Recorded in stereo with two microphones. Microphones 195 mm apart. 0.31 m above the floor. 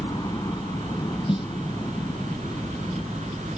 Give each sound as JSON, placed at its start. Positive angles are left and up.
{"t": 0.0, "sound": "a helicopter", "side_deg": 20}
{"t": 1.3, "sound": "a snare drum", "side_deg": 25}